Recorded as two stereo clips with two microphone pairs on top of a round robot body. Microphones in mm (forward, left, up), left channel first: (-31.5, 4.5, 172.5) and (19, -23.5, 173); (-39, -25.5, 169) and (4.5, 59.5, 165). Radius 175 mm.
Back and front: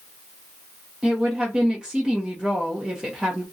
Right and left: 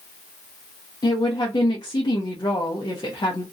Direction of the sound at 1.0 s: 105° right.